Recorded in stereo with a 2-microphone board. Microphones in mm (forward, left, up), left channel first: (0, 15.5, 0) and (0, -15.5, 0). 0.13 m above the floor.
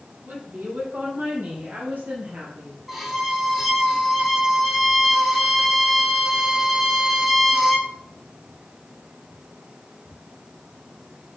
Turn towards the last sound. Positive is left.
turn(degrees=-10)  # may be behind; listen again after turning